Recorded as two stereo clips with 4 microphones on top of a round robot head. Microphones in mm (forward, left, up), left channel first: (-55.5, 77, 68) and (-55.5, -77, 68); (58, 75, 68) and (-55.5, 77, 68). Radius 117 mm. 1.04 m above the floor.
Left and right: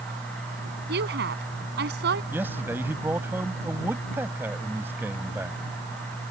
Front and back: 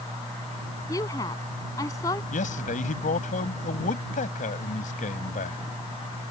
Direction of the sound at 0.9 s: 70° right.